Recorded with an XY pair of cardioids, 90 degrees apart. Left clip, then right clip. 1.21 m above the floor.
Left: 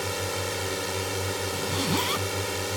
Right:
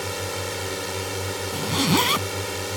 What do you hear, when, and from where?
0.0 s a drone: 5° right
1.5 s a zipper: 55° right